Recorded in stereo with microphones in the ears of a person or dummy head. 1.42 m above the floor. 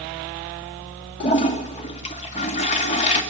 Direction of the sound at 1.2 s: 35° left (ahead or behind).